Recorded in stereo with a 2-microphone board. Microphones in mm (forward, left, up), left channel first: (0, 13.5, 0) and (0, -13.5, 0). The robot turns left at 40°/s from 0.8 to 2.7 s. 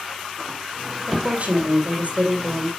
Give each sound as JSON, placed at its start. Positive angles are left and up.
{"t": 1.1, "sound": "a woman speaking", "azimuth_deg": -45, "distance_m": 3.0}